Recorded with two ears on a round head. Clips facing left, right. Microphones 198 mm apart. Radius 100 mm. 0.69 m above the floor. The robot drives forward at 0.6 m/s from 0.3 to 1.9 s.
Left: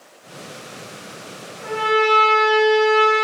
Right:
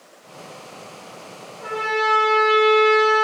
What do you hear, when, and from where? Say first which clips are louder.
1.6 s a trumpet: left 5 dB; 5° left (ahead or behind), 1.2 m